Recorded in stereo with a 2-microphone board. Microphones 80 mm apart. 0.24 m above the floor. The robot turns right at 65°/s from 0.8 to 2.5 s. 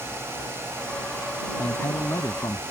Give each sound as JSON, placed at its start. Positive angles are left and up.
{"t": 1.6, "sound": "a man speaking", "azimuth_deg": 25}